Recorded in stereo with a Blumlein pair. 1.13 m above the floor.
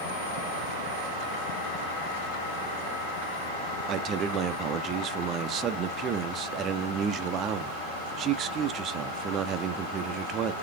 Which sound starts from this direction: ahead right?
A man speaking, at 3.9 s.